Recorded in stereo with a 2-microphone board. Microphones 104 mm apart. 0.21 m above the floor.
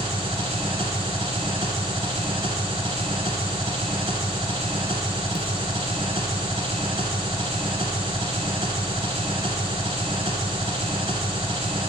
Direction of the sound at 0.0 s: 70° right (ahead or behind).